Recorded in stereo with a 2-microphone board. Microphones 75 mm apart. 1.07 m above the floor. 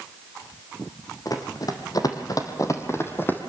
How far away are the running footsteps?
About 2.5 m.